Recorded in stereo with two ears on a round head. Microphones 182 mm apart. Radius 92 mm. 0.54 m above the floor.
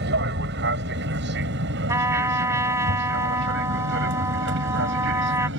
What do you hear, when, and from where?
0.0 s an aircraft: 55° right (ahead or behind); by 5.6 s 60° right (ahead or behind)
1.9 s a trumpet: 15° right (ahead or behind)